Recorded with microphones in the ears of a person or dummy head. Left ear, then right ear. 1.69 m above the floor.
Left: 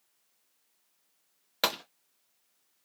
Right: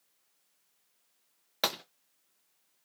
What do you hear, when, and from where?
1.6 s a gunshot: centre (ahead or behind), 0.6 m